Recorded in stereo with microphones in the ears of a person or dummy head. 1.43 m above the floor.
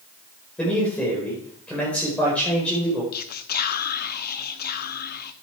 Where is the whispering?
50° left (ahead or behind), 0.9 m.